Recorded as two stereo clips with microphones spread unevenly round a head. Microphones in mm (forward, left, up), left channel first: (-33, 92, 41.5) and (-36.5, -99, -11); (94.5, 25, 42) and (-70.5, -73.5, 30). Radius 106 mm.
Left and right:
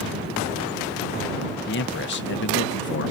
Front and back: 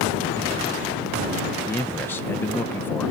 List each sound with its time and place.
1.7 s a man speaking: 110° left